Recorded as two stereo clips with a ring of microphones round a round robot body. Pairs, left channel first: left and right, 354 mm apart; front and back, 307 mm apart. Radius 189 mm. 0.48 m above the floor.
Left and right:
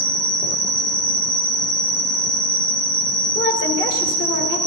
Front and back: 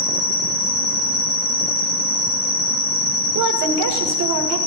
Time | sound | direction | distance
0.0 | an insect | 70° right | 3 m
3.4 | a woman speaking | 150° left | 1.8 m